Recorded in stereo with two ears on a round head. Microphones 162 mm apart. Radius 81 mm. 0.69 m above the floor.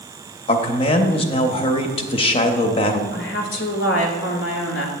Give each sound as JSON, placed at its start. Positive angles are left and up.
{"t": 0.5, "sound": "a man speaking", "side_deg": 30, "distance_m": 0.7}
{"t": 3.1, "sound": "a woman speaking", "side_deg": 70, "distance_m": 1.8}